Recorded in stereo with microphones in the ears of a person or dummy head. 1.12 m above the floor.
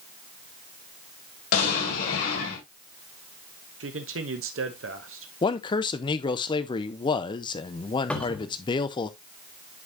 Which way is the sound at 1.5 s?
65° left (ahead or behind).